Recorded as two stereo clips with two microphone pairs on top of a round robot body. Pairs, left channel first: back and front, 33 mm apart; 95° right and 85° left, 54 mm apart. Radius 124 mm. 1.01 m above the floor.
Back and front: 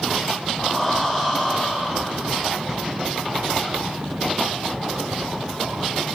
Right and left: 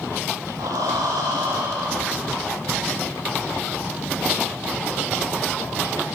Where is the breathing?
100° left, 0.6 m.